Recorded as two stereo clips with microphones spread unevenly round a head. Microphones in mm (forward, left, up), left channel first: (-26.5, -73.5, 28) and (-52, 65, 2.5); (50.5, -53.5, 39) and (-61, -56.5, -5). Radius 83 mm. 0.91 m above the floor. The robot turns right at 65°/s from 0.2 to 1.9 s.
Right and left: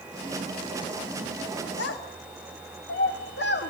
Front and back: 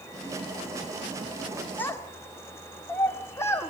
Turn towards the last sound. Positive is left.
turn(degrees=-70)